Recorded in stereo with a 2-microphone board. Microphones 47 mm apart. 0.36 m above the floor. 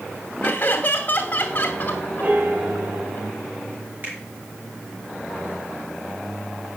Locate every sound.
0.4 s laughter: 35° left (ahead or behind), 2.5 m
2.2 s a piano: 40° right (ahead or behind), 3 m
4.0 s a finger snap: 35° right (ahead or behind), 4.5 m